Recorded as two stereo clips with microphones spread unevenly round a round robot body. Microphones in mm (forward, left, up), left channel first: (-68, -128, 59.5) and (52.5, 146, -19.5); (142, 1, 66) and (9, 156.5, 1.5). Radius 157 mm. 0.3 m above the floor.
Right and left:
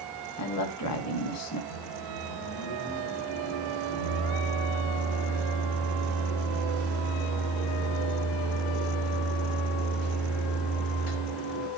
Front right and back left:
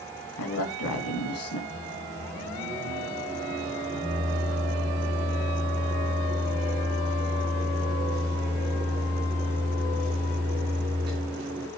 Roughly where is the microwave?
Behind.